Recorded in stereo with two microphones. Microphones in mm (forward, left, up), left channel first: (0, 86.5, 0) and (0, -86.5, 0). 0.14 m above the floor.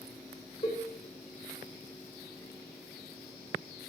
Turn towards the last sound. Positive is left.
turn(degrees=35)  # may be behind; listen again after turning